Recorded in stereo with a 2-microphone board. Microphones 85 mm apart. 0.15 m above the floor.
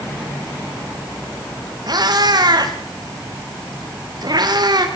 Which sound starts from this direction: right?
A cat meowing, at 1.9 s.